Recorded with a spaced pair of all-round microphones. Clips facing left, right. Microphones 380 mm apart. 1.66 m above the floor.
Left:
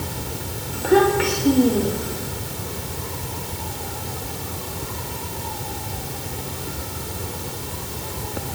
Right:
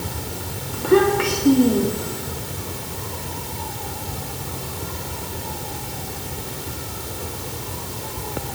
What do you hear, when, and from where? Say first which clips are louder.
0.7 s a child speaking: right 1 dB; 10° right (ahead or behind), 3 m; by 2.3 s 5° right (ahead or behind), 4 m